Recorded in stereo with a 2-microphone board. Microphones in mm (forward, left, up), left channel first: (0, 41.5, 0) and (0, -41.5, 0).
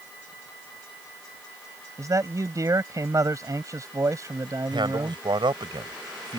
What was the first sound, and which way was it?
A man speaking, 40° right (ahead or behind).